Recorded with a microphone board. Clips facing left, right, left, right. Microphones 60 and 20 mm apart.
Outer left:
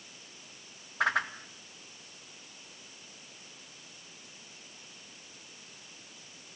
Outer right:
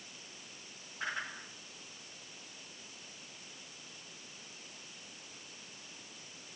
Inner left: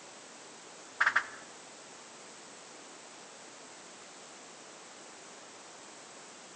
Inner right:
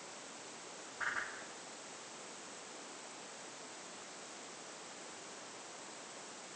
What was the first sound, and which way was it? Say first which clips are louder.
A whoosh: outer left 10 dB, inner left 11 dB; 80° left.